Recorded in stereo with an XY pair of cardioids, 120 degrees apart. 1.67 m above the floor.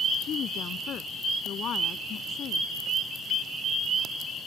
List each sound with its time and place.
0.2 s a woman speaking: 55° left